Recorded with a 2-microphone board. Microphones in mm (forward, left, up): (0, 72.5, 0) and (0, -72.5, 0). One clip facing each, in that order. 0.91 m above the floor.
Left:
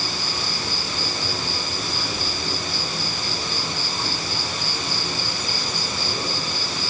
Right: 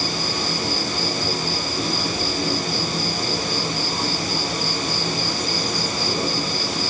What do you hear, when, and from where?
0.0 s an insect: 40° right (ahead or behind), 7 m